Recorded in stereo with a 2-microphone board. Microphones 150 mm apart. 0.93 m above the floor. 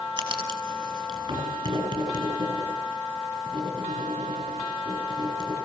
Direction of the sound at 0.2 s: 30° right (ahead or behind).